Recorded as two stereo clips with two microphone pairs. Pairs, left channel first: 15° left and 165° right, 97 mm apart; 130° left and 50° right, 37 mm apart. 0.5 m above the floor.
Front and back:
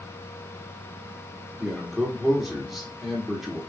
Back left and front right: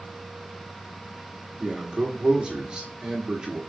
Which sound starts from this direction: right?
A man speaking, at 1.6 s.